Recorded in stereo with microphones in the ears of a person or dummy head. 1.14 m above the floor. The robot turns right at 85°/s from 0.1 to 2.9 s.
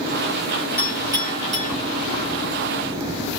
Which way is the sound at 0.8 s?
15° left (ahead or behind).